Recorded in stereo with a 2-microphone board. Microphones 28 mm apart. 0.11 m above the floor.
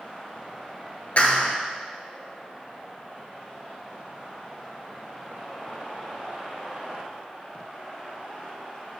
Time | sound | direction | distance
1.2 | a clap | 50° left (ahead or behind) | 1.4 m